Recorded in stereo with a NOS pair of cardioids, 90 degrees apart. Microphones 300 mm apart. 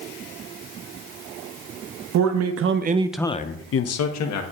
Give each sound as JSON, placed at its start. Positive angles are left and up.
{"t": 2.1, "sound": "a man speaking", "azimuth_deg": -70, "distance_m": 1.5}